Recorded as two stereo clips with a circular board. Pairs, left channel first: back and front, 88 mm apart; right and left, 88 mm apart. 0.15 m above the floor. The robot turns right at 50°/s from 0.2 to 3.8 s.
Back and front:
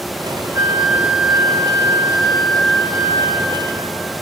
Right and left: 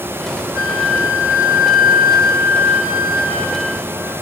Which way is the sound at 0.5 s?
60° left.